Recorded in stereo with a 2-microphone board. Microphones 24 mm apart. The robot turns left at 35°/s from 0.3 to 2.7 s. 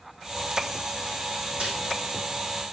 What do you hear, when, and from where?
1.6 s a snare drum: 60° right (ahead or behind), 6 m; by 1.8 s 65° right (ahead or behind), 6 m